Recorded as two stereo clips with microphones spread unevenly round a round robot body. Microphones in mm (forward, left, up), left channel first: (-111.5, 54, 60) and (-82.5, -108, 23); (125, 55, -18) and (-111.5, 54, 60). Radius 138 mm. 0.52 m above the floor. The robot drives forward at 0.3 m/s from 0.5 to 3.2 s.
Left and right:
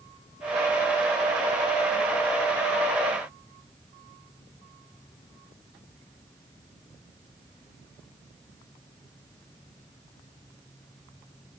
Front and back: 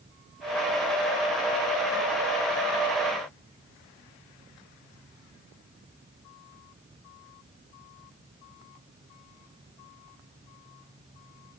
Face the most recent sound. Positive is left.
No sound to turn to.